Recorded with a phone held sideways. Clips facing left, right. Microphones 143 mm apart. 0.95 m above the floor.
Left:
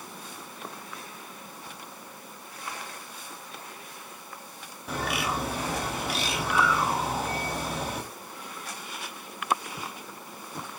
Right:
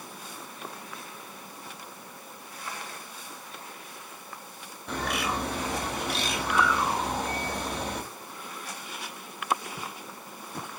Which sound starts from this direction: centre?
A bird, at 4.9 s.